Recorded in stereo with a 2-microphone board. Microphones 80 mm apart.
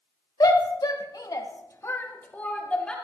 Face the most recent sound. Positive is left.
turn(degrees=15)  # may be behind; listen again after turning